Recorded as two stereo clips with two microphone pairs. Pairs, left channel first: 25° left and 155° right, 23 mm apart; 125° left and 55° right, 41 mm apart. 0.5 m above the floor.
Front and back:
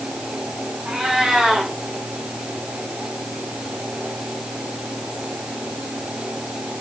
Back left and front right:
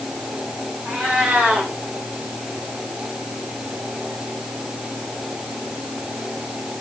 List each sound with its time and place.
0.8 s a cat meowing: 110° right, 8 m